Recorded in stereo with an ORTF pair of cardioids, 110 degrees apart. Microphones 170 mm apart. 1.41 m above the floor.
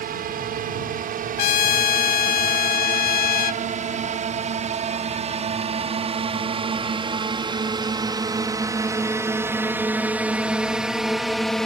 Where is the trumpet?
60° left.